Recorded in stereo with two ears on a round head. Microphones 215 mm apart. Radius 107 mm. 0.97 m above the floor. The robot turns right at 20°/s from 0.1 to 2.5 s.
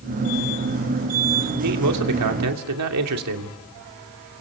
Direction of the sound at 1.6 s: 80° right.